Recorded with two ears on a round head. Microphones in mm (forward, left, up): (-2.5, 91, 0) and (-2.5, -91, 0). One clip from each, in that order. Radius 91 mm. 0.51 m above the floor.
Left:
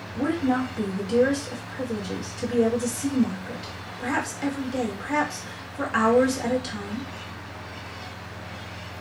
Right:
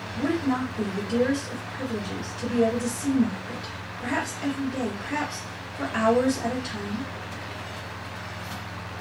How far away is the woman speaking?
About 1.2 m.